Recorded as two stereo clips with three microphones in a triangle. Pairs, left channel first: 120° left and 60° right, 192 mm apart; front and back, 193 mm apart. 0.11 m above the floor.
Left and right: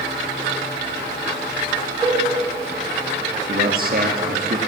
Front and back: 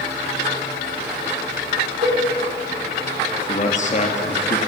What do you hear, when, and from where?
2.0 s a cowbell: 135° right, 3 m
3.5 s a man speaking: 40° right, 1.9 m